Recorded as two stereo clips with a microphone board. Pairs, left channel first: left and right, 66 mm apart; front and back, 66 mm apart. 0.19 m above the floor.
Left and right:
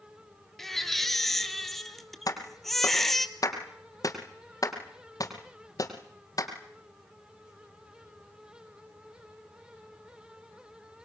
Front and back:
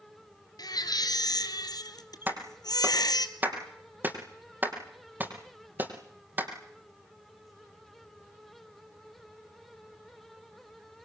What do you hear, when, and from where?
0.6 s a baby crying: 5° left, 1.7 m
2.3 s a clap: 120° left, 5 m